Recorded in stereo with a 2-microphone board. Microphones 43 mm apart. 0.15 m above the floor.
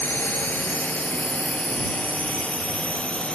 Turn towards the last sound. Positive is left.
turn(degrees=25)  # may be behind; listen again after turning